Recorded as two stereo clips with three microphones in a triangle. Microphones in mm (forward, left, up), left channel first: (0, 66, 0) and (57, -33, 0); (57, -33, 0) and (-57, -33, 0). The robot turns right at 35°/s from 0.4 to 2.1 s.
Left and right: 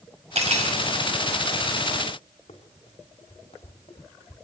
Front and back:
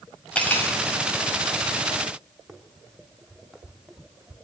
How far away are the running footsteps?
About 4.5 m.